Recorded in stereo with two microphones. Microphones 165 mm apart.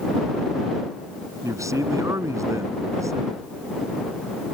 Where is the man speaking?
20° right (ahead or behind).